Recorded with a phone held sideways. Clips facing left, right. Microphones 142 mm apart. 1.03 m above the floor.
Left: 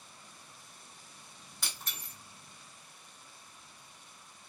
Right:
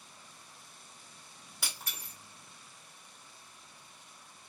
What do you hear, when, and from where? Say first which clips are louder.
1.6 s breaking glass: right 1 dB; 10° right (ahead or behind), 1.5 m